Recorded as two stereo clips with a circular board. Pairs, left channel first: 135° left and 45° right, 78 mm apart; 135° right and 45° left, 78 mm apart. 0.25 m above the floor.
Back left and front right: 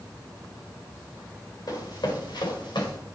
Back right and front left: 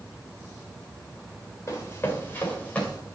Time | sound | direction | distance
1.7 | running footsteps | 170° left | 3 m